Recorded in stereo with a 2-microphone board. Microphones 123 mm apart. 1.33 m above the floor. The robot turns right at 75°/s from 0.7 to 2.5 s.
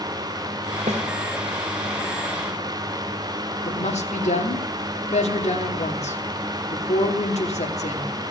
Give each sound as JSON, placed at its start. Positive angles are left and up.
{"t": 0.9, "sound": "a snare drum", "side_deg": -65, "distance_m": 1.7}
{"t": 3.6, "sound": "a woman speaking", "side_deg": 65, "distance_m": 2.5}